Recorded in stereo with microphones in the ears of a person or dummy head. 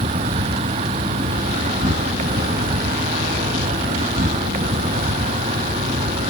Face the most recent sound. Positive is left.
turn(degrees=-20)  # may be behind; listen again after turning